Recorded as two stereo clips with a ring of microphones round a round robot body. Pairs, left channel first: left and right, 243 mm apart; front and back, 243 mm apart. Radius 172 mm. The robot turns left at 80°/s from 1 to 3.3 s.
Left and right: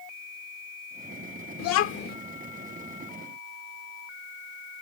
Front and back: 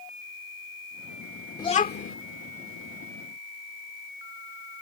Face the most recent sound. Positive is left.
turn(degrees=-60)